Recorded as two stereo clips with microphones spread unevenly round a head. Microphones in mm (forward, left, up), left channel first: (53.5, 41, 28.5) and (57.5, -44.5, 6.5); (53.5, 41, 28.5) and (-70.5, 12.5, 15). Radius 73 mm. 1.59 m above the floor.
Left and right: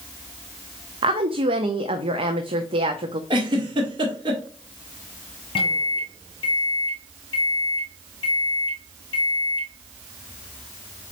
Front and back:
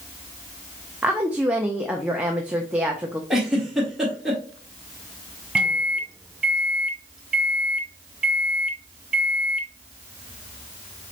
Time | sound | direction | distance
1.0 | a woman speaking | 85° right | 0.5 m
3.3 | a giggle | 75° right | 1.4 m
5.5 | a microwave | 105° left | 0.9 m